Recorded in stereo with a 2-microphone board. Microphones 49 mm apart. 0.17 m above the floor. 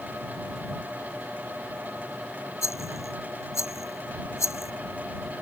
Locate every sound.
2.6 s a rattle: 80° left